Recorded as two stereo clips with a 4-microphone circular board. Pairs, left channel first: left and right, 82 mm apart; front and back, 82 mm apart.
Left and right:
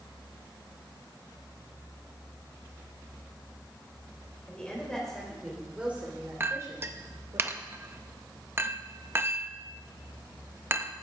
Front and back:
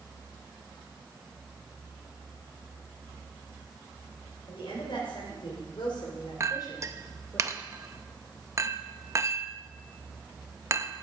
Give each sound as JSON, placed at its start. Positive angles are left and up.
{"t": 4.5, "sound": "a woman speaking", "azimuth_deg": 15, "distance_m": 3.5}
{"t": 6.4, "sound": "a clink", "azimuth_deg": -140, "distance_m": 0.6}